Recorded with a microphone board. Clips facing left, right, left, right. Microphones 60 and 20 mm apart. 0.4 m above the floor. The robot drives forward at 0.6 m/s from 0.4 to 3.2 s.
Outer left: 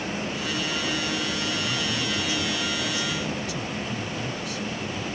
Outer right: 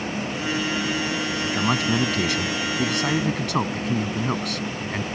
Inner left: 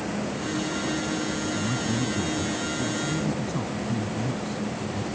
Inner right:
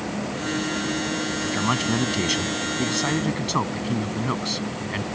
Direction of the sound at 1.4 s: 70° right (ahead or behind).